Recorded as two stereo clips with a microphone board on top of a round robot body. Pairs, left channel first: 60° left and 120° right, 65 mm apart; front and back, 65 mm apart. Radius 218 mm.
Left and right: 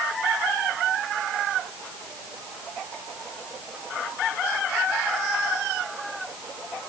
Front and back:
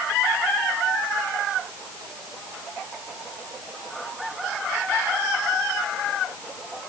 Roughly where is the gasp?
No gasp in this recording.